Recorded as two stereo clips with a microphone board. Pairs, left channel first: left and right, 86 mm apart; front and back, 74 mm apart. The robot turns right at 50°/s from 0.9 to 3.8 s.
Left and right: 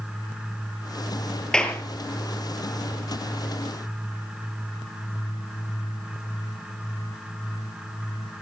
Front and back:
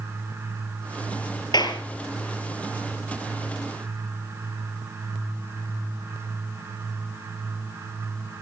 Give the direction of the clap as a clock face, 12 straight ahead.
12 o'clock.